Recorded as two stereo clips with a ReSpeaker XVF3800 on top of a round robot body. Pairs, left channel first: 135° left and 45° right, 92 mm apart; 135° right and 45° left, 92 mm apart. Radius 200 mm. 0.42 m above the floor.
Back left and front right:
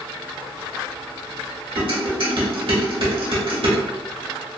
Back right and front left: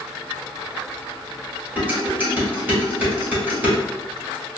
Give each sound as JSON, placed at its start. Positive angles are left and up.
{"t": 1.8, "sound": "dishes clattering", "azimuth_deg": -25, "distance_m": 1.7}